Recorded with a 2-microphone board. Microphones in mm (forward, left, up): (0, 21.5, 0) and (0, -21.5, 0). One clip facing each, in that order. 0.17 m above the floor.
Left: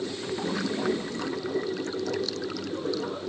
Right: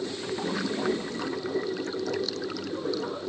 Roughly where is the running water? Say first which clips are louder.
Even; centre.